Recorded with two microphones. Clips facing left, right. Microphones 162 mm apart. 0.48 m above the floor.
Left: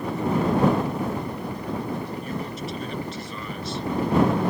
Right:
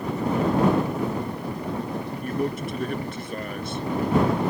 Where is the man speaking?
55° right (ahead or behind).